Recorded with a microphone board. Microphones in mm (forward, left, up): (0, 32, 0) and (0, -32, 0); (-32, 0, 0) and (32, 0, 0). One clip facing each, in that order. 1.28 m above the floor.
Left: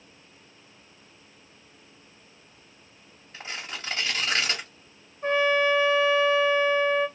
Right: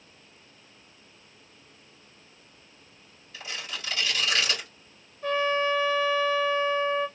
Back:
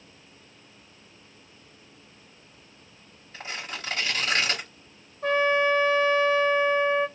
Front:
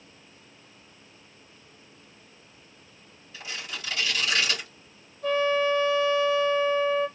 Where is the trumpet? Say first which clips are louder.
Left 3 dB, back 1 dB; 155° left, 1.5 m.